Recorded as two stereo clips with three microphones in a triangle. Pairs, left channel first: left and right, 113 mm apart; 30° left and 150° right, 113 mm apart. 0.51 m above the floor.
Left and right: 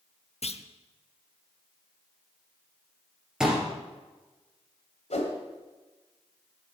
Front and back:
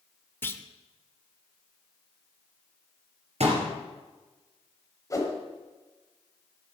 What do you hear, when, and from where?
0.4 s a clunk: 100° left, 0.7 m
3.4 s a pop: 175° right, 3.5 m
5.1 s a whoosh: 90° left, 2 m